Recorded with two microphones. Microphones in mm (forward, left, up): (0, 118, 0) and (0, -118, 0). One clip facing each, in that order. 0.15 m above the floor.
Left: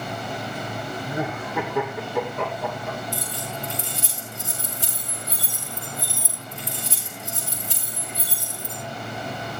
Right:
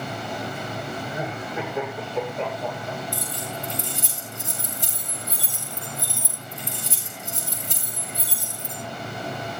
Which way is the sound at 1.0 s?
80° left.